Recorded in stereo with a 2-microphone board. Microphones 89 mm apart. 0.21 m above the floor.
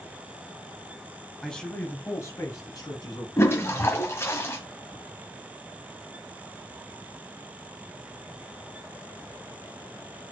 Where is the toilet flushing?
30° left (ahead or behind), 1.5 m.